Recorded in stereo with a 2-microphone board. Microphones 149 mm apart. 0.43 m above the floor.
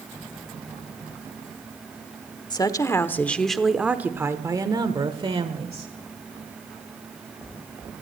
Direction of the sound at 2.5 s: 30° left (ahead or behind).